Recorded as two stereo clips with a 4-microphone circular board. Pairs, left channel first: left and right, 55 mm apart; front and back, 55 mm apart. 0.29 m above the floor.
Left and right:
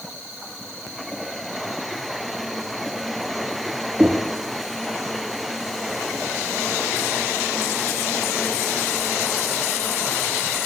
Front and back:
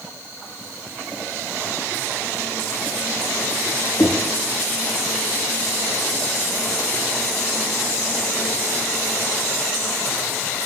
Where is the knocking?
15° right, 4 m.